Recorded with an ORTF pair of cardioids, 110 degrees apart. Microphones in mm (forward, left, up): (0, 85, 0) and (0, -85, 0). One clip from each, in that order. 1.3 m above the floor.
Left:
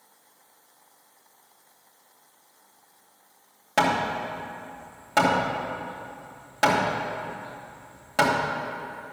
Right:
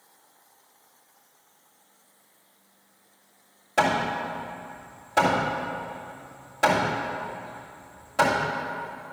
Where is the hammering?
45° left, 2.5 m.